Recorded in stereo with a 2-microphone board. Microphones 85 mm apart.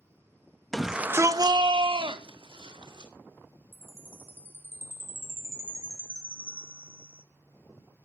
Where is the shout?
5° left (ahead or behind), 1.2 m; by 3.1 s 70° right (ahead or behind), 3 m.